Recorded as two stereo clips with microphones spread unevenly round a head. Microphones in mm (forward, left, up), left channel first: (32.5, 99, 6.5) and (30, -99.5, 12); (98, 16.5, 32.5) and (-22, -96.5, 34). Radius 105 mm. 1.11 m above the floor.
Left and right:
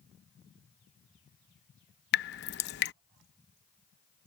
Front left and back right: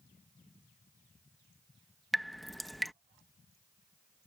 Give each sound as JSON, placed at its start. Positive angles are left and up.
{"t": 2.1, "sound": "dripping", "azimuth_deg": 135}